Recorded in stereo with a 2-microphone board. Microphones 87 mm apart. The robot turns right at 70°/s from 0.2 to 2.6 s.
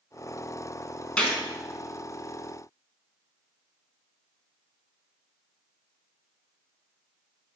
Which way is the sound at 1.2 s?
10° left (ahead or behind).